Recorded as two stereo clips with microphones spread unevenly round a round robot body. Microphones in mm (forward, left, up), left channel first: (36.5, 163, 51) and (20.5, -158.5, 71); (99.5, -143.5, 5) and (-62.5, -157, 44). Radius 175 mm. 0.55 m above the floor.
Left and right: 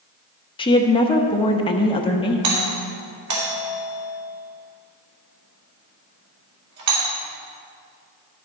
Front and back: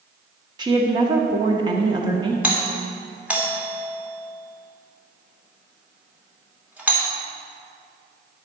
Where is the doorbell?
85° right, 2.5 m.